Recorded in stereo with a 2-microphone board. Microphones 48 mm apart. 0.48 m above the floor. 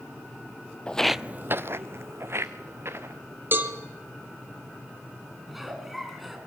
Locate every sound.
0.9 s footsteps: 25° left (ahead or behind), 0.7 m; by 3.2 s 55° right (ahead or behind), 3 m
3.5 s a cowbell: 45° right (ahead or behind), 2.5 m
5.5 s a giggle: centre (ahead or behind), 3.5 m